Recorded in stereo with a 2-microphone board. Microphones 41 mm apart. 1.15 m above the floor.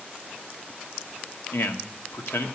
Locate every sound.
1.5 s a man speaking: 75° left (ahead or behind), 1.3 m